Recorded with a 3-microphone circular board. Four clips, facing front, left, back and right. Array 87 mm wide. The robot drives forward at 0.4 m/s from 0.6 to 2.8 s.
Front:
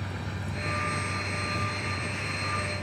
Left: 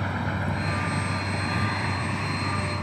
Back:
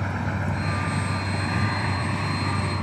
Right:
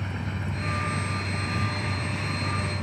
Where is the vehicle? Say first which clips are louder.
Left 5 dB, back 9 dB; 130° left; by 2.8 s 155° left.